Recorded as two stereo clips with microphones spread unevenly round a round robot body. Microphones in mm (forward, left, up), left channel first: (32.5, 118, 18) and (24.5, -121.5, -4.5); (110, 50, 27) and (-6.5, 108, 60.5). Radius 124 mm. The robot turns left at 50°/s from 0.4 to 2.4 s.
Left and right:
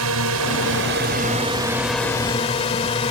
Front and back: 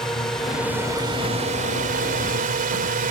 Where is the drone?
105° right; by 3.1 s 155° left.